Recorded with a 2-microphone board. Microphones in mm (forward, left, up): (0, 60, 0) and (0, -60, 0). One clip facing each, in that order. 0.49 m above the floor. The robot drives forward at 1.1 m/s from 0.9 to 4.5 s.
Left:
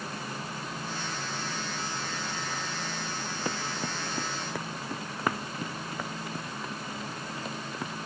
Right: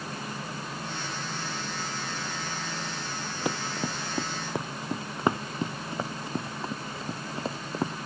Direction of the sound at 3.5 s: 15° right (ahead or behind).